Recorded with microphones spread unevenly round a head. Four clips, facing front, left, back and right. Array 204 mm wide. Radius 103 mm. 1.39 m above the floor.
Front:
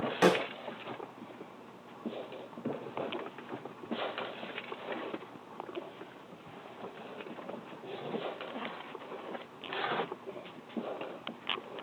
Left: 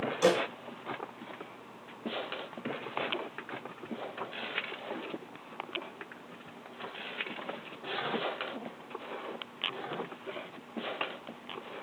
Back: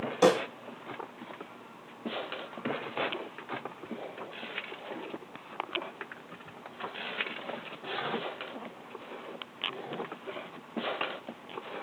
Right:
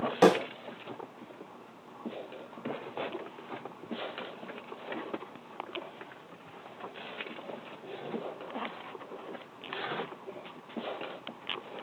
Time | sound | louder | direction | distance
0.2 | a snare drum | right 4 dB, back 3 dB | 95° right | 5 m